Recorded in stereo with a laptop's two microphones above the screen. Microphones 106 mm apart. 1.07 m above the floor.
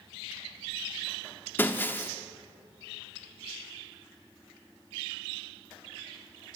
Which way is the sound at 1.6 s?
20° left (ahead or behind).